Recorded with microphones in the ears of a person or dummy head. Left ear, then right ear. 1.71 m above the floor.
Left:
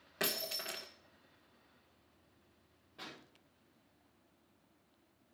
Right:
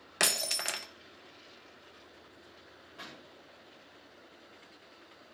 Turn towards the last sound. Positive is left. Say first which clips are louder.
# right 2 dB
turn(degrees=-25)  # may be behind; listen again after turning